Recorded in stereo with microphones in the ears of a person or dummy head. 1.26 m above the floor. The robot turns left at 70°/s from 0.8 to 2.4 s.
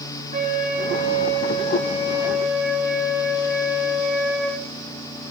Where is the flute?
65° right, 0.8 m; by 4.6 s straight behind, 0.8 m.